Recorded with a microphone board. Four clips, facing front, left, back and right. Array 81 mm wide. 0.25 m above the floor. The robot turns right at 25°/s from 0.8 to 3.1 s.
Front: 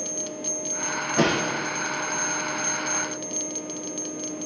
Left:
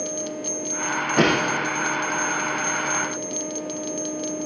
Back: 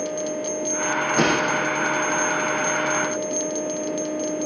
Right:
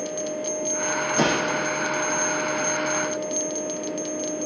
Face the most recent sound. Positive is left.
turn(degrees=150)